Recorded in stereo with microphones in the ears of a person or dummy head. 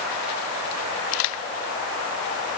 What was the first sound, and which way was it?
Only background noise.